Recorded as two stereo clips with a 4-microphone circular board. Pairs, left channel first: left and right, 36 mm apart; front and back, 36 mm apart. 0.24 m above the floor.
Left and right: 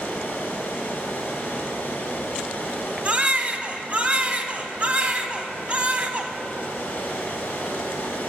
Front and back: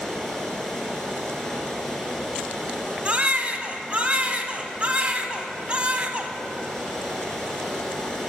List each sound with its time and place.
0.0 s running water: 75° left, 1.5 m
3.0 s a baby crying: 130° right, 0.5 m